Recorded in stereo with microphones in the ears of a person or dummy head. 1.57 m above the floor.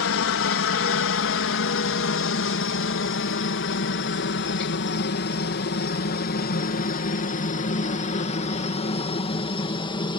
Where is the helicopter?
65° left (ahead or behind); by 10.2 s 25° left (ahead or behind).